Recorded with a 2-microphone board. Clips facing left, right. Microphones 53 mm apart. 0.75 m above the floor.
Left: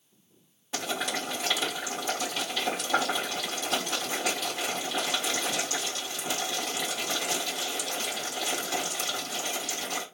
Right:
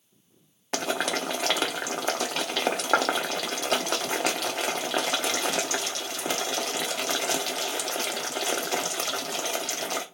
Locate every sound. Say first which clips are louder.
0.7 s boiling: right 4 dB; 60° right (ahead or behind), 1.0 m